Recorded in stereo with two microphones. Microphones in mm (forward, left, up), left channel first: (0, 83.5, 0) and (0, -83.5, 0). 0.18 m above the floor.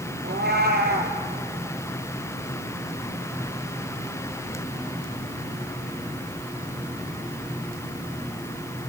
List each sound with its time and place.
0.2 s a cat meowing: 75° right (ahead or behind), 2.5 m